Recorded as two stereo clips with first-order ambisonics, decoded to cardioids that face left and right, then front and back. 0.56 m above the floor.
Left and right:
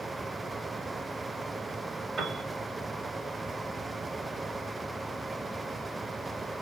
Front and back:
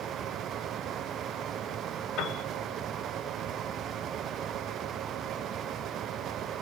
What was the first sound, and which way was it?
A piano, 25° right.